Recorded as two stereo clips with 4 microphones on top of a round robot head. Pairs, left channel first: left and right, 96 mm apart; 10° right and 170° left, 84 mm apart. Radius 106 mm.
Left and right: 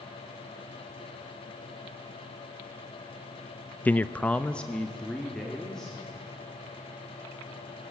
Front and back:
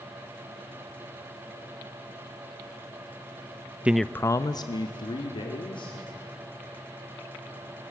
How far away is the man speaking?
About 0.6 m.